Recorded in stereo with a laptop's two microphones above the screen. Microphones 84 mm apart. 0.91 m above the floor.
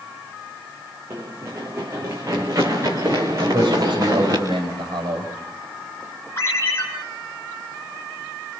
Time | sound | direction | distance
1.1 | running footsteps | 35° right (ahead or behind) | 4.5 m
3.4 | a man speaking | 65° right (ahead or behind) | 5 m
6.4 | a ringtone | 30° left (ahead or behind) | 7 m